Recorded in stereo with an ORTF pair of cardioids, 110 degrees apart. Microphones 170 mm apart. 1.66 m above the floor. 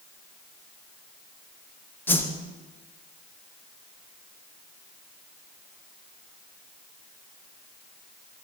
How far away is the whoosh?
About 0.7 m.